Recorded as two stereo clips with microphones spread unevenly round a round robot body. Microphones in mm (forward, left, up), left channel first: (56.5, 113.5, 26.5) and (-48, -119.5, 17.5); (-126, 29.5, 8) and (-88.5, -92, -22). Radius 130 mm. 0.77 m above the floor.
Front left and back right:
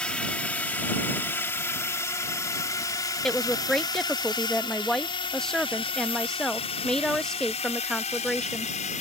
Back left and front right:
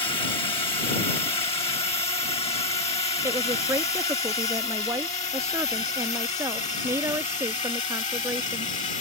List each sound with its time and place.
0.0 s a drone: 150° left; by 9.0 s 125° left
3.2 s a woman speaking: 25° right